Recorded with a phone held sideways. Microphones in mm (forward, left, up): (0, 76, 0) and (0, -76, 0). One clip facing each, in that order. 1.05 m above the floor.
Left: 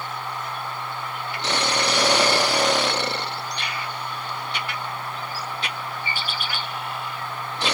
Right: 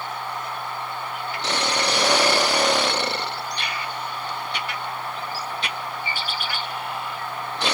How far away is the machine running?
About 7 m.